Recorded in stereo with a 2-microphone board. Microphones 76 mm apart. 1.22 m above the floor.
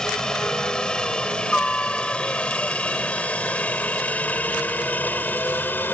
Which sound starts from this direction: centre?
A helicopter, at 0.0 s.